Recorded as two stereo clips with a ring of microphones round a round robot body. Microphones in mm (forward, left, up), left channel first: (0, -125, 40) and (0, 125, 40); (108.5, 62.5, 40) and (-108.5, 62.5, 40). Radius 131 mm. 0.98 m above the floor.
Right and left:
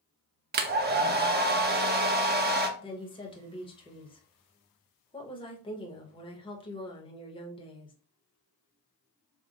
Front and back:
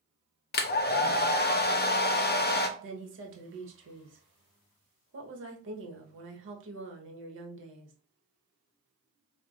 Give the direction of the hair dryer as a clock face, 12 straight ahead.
11 o'clock.